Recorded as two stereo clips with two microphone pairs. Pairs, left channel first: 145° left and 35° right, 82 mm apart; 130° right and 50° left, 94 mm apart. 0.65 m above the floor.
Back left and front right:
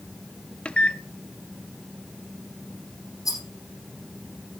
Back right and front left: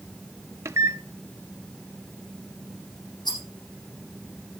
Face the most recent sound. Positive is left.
turn(degrees=-170)